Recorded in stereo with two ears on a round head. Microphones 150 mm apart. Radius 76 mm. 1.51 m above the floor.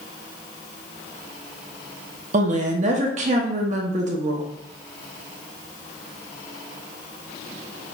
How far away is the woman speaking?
About 0.6 m.